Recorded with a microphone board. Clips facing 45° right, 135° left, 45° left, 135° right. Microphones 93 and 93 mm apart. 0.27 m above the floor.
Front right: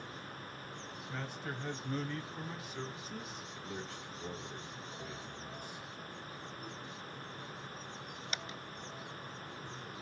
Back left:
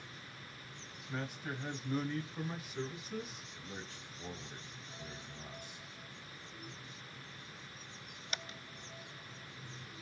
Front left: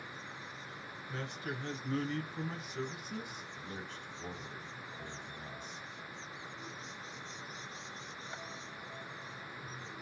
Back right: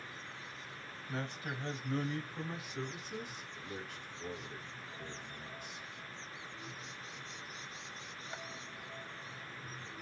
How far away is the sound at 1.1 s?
About 1.4 m.